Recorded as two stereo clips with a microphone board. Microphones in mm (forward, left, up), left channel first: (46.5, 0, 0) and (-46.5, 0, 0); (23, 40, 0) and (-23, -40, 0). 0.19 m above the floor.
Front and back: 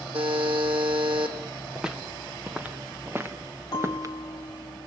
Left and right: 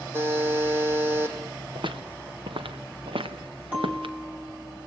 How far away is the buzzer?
About 4.5 m.